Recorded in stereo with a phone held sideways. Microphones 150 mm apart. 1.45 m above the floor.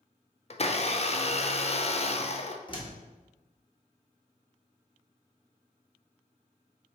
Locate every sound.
0.5 s a blender: 45° left (ahead or behind), 0.5 m
2.7 s a door slam: 35° left (ahead or behind), 1.4 m